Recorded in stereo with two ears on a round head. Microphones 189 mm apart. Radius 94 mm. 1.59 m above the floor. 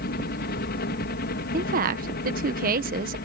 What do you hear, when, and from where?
0.0 s a helicopter: 50° left (ahead or behind)
1.5 s a woman speaking: 40° right (ahead or behind)